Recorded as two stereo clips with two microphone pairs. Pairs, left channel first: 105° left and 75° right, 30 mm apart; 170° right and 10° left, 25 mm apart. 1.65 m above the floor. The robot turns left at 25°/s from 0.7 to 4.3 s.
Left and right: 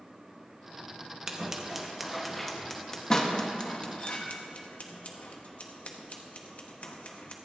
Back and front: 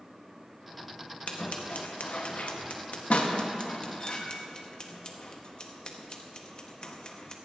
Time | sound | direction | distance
1.3 | scissors | 140° right | 1.1 m